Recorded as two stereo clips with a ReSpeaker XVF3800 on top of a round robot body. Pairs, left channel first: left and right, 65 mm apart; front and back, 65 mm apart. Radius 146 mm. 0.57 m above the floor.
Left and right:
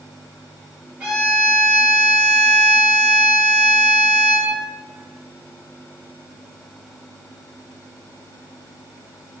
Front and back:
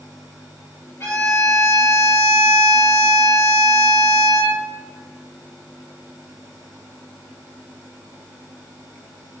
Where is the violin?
25° right, 1.6 m.